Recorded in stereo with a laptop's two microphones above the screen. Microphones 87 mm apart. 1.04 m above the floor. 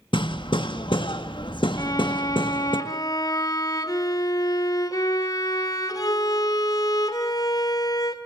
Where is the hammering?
70° left (ahead or behind), 1.8 m.